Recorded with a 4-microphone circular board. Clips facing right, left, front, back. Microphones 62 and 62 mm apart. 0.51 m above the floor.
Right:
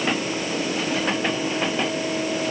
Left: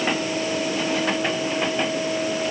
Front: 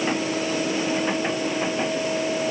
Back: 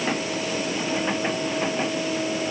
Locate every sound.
Only background noise.